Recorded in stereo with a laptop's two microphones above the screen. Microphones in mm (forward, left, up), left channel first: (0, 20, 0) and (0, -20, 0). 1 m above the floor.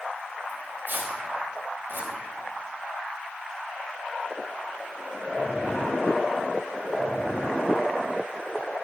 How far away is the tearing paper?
About 4 m.